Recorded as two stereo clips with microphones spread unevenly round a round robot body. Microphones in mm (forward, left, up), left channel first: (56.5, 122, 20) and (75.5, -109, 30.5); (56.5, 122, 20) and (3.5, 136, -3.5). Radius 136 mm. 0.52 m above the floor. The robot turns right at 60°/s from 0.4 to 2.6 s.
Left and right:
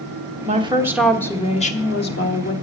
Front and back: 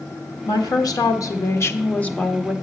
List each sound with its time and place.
0.5 s a woman speaking: 30° right, 1.1 m; by 2.5 s 95° left, 1.1 m